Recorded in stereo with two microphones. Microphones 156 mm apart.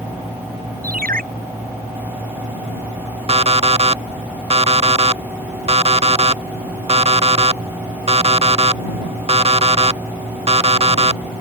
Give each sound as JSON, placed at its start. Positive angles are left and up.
{"t": 0.8, "sound": "a ringtone", "side_deg": -65}
{"t": 3.3, "sound": "an alarm clock", "side_deg": -40}